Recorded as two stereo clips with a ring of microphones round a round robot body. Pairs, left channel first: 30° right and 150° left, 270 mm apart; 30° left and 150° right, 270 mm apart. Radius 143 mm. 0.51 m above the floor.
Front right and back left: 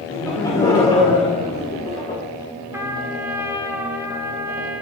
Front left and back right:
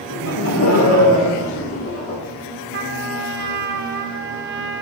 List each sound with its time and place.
0.1 s laughter: 45° left, 2.5 m; by 2.2 s 25° left, 1.7 m
2.7 s a trumpet: 135° right, 1.3 m